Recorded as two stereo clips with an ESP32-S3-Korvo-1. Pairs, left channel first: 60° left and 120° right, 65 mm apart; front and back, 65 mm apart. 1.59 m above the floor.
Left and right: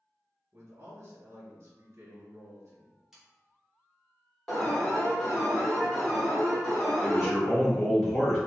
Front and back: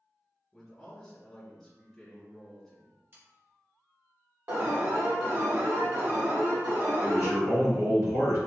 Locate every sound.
0.5 s a man speaking: 80° right, 1.4 m
3.1 s sawing: 160° left, 1.0 m
4.5 s an alarm: 145° left, 1.5 m
7.0 s a man speaking: 160° left, 1.7 m